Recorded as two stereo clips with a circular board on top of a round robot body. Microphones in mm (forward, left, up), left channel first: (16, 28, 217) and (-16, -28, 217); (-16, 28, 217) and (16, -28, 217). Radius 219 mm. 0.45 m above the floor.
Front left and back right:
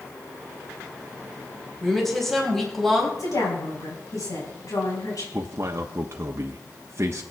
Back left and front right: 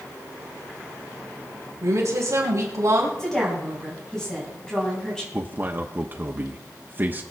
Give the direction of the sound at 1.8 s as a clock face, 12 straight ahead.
1 o'clock.